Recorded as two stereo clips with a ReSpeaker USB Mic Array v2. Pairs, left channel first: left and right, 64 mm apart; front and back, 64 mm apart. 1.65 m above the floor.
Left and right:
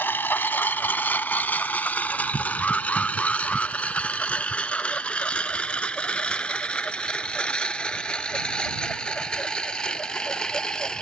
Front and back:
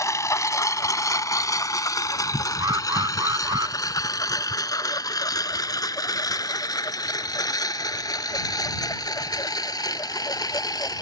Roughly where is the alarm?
Behind.